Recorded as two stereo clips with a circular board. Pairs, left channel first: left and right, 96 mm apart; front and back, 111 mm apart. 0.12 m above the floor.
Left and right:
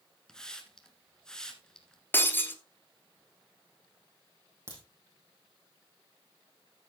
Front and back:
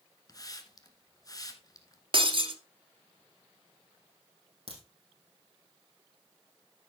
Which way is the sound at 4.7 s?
150° right.